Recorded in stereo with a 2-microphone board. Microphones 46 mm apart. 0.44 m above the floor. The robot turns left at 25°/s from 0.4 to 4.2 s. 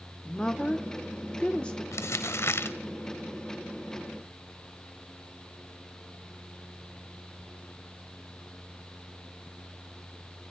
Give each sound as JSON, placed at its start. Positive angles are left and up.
{"t": 0.2, "sound": "a woman speaking", "side_deg": 15, "distance_m": 0.8}
{"t": 1.9, "sound": "crumpling", "side_deg": 75, "distance_m": 0.7}